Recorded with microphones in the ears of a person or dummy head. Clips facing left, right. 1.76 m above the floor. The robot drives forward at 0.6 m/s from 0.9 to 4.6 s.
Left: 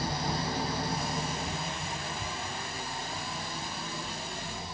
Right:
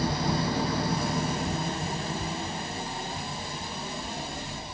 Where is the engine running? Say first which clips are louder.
Right 5 dB; 50° right (ahead or behind), 0.8 m; by 4.8 s 15° right (ahead or behind), 2.5 m.